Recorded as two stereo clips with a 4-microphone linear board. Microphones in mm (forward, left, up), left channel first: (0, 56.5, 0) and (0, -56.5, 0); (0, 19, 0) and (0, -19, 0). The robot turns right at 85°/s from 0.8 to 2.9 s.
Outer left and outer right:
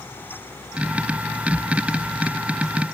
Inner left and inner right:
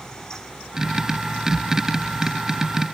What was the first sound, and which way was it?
Only background noise.